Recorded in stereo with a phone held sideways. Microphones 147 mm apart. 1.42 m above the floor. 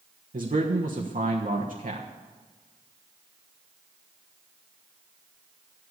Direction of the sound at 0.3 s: 80° right.